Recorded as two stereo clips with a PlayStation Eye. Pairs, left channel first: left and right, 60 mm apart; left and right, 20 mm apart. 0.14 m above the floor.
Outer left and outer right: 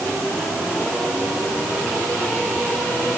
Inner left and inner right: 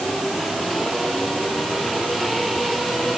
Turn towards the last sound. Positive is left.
No sound to turn to.